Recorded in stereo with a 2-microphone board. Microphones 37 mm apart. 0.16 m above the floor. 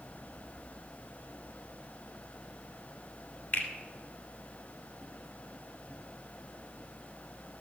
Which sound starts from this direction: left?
A finger snap, at 3.5 s.